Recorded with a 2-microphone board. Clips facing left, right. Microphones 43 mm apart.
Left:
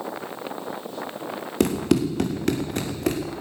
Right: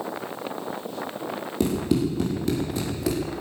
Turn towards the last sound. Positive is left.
turn(degrees=50)  # may be behind; listen again after turning